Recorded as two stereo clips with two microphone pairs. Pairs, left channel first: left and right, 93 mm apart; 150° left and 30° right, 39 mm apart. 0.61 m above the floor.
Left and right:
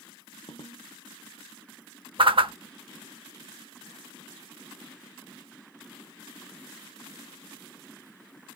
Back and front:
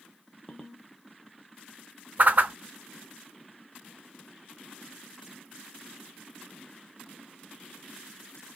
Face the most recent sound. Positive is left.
turn(degrees=-65)